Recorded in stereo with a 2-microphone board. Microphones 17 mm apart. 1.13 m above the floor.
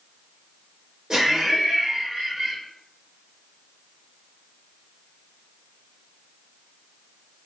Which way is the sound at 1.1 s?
40° right (ahead or behind).